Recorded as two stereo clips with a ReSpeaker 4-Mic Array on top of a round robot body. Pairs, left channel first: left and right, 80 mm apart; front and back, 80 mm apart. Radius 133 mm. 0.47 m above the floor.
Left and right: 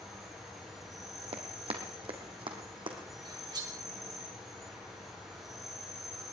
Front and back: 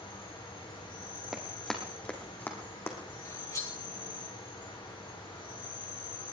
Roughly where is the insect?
Ahead.